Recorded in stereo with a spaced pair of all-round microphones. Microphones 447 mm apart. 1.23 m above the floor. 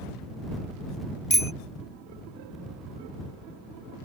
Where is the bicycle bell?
80° left.